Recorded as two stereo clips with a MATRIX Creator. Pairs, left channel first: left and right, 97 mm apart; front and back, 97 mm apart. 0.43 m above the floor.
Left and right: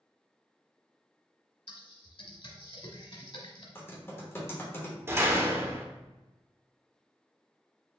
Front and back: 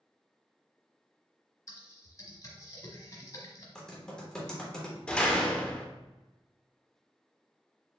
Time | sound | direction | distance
1.7 | typing on a keyboard | 55° left | 0.9 m
3.8 | typing on a keyboard | 75° left | 1.2 m
5.1 | a door slam | 65° right | 0.6 m